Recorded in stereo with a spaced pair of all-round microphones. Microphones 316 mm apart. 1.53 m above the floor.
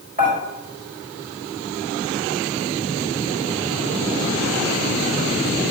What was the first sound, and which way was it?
Dishes clattering, 30° right (ahead or behind).